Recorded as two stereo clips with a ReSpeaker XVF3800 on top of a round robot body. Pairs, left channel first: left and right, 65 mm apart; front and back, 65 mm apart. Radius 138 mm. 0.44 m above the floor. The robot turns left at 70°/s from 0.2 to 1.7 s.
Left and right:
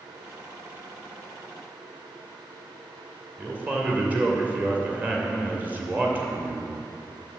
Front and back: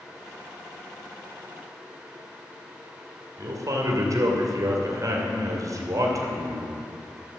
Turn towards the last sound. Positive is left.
turn(degrees=-155)